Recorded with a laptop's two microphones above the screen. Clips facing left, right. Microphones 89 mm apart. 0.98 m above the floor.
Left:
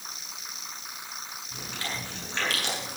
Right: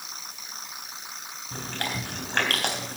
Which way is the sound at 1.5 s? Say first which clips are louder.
Right 5 dB; 60° right (ahead or behind).